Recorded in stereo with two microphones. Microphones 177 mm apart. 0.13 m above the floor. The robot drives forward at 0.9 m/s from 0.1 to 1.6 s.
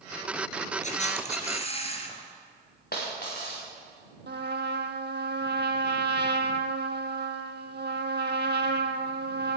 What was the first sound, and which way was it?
A camera shutter, 45° left (ahead or behind).